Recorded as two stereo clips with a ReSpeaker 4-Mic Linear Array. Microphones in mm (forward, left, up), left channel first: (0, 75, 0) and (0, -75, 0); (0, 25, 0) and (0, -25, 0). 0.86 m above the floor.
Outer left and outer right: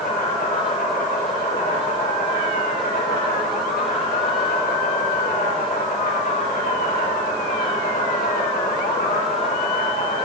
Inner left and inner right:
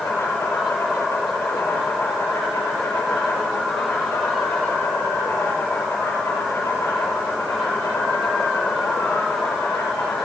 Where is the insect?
85° left, 5.5 m.